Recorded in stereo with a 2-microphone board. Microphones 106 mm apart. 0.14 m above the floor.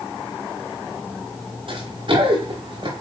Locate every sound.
1.7 s running footsteps: 50° right (ahead or behind), 6 m